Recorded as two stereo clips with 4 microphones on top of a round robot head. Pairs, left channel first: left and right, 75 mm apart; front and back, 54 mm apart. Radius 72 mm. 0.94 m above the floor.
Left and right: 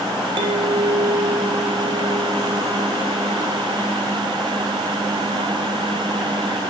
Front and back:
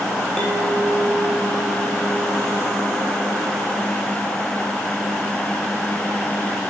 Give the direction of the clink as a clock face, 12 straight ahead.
3 o'clock.